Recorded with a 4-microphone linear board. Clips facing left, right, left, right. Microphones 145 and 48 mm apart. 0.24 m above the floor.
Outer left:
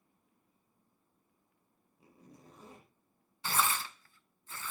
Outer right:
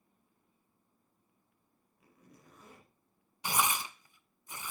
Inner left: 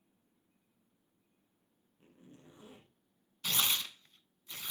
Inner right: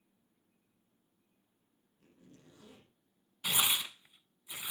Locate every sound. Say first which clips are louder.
2.0 s a zipper: outer left 3 dB, inner left 2 dB; 30° left (ahead or behind), 6.5 m
3.4 s tearing paper: outer right 1 dB, inner right 2 dB; 15° right (ahead or behind), 0.6 m